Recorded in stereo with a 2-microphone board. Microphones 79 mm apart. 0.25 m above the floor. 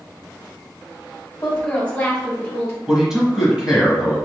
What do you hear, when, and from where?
1.4 s a woman speaking: 15° left (ahead or behind), 1.5 m; by 2.8 s 35° left (ahead or behind), 1.6 m
2.9 s a man speaking: 5° right (ahead or behind), 1.2 m